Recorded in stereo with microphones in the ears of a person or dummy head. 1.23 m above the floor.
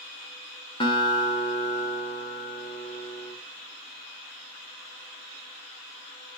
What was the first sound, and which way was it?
A guitar, 30° left (ahead or behind).